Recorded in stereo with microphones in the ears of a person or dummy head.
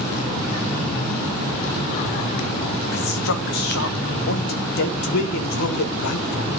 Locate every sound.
2.9 s a man speaking: 60° left (ahead or behind), 1.6 m